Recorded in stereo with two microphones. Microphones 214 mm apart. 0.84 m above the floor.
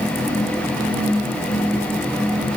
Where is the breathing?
I don't hear breathing.